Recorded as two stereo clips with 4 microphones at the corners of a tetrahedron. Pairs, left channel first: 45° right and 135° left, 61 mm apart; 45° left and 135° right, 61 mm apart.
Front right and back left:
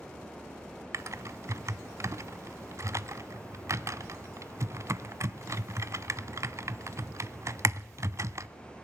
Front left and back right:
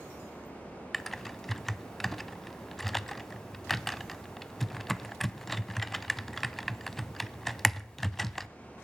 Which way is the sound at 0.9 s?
130° left.